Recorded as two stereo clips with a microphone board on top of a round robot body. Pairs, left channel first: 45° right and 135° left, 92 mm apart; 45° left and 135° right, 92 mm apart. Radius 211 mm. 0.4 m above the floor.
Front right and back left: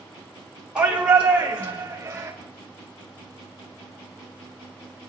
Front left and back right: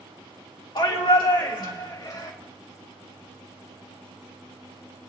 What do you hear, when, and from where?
0.8 s a shout: 55° left, 2 m; by 2.3 s 75° left, 2.5 m